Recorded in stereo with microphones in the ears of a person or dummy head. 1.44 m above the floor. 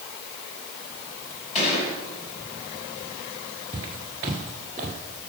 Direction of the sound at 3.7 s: 20° right (ahead or behind).